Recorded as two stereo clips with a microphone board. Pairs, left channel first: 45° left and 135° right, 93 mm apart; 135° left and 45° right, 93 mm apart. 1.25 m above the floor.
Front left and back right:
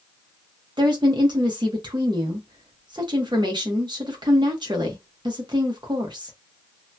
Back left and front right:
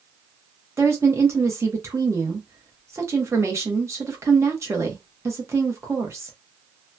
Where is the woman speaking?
100° right, 1.1 m.